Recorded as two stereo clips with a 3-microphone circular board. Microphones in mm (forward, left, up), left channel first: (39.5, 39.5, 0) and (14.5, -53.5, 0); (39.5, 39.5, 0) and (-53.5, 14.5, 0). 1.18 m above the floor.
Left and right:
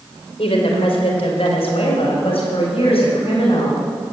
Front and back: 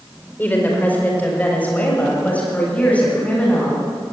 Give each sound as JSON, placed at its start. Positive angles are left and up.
{"t": 0.4, "sound": "a woman speaking", "azimuth_deg": 85, "distance_m": 4.5}